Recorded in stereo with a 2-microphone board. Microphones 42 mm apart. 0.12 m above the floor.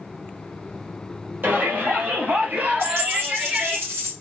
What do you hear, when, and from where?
1.4 s a shout: 55° right (ahead or behind), 2.5 m; by 3.8 s 20° right (ahead or behind), 1.7 m
2.8 s a dropped coin: 60° right (ahead or behind), 3 m